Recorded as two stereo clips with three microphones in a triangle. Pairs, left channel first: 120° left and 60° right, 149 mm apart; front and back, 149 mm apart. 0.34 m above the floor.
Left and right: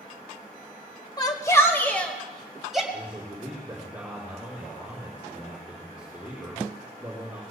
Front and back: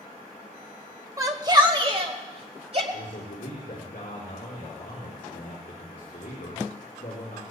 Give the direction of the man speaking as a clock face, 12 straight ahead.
11 o'clock.